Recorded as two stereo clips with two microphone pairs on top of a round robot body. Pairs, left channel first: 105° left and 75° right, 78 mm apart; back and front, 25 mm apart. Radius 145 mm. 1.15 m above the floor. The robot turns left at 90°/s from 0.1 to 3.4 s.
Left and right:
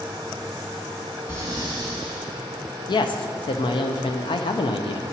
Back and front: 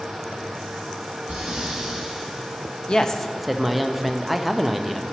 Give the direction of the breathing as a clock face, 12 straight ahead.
12 o'clock.